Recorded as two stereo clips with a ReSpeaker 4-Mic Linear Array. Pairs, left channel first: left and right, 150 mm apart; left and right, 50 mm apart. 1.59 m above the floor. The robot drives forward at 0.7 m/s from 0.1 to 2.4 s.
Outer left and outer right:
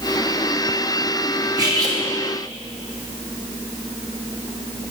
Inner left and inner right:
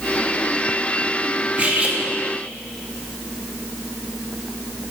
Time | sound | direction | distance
1.6 | cutlery clinking | 30° right (ahead or behind) | 0.9 m